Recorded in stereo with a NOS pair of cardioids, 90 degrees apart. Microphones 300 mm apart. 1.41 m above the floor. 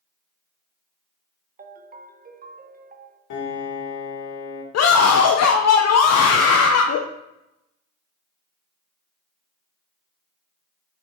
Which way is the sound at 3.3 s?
65° left.